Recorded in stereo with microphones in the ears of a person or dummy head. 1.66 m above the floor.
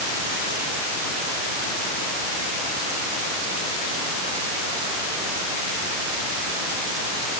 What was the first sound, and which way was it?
Only background noise.